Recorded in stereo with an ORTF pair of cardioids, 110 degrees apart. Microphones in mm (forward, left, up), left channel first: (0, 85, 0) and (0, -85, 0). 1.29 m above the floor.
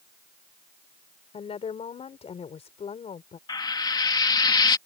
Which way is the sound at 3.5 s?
25° left.